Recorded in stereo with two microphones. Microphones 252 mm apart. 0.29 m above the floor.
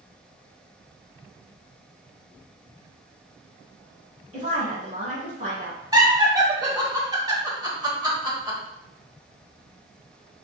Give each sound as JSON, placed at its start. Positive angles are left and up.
{"t": 4.3, "sound": "a woman speaking", "side_deg": -30, "distance_m": 1.9}
{"t": 5.9, "sound": "laughter", "side_deg": -15, "distance_m": 1.0}